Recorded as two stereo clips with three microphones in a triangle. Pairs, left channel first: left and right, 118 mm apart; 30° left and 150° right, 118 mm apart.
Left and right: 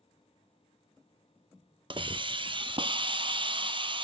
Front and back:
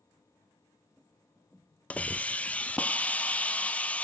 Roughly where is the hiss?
Ahead right.